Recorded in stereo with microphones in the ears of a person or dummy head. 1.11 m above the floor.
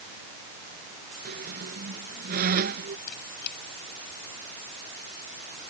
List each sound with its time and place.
1.2 s a squeak: 50° right (ahead or behind)
3.1 s a squeak: 55° left (ahead or behind)